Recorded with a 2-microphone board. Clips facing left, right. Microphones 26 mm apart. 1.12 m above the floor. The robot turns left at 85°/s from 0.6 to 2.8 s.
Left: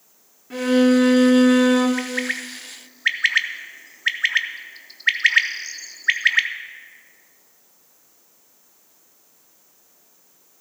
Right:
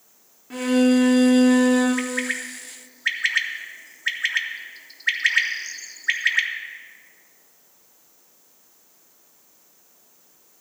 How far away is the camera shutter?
No camera shutter in this recording.